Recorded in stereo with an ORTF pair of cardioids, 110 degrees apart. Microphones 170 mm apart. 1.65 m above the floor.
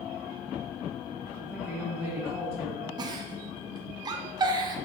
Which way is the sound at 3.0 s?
25° right.